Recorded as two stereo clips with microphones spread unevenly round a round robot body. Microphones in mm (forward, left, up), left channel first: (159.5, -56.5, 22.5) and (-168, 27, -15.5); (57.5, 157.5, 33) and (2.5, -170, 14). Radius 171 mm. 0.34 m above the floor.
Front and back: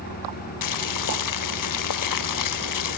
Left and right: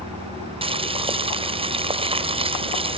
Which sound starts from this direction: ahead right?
Boiling, at 0.6 s.